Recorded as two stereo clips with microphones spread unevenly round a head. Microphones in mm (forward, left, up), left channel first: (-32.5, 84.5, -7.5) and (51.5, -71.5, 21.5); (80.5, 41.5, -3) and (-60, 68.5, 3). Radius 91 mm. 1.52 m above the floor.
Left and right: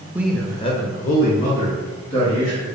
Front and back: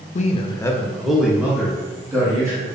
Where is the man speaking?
20° left, 0.6 m; by 2.7 s 100° left, 2 m.